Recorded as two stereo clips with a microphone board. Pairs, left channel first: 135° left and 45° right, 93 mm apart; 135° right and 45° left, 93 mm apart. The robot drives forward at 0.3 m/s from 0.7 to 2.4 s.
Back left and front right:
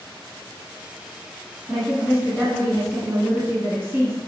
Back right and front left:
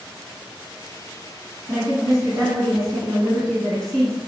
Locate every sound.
1.7 s a woman speaking: 35° right, 1.3 m; by 4.2 s 50° right, 1.2 m